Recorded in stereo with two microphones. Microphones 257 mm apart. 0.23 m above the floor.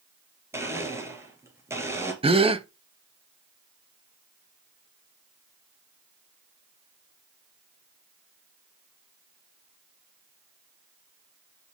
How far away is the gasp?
About 0.7 m.